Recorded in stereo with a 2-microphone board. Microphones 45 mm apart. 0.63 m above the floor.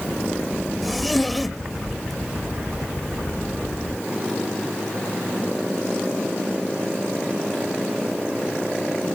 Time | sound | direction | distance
0.8 | a zipper | centre (ahead or behind) | 1.3 m